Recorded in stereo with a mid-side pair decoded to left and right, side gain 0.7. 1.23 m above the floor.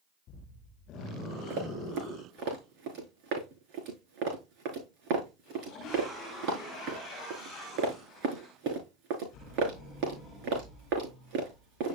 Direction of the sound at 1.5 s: 65° right.